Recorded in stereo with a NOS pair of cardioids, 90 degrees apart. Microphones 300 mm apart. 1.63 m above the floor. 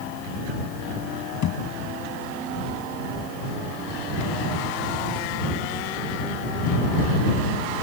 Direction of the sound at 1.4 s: 70° left.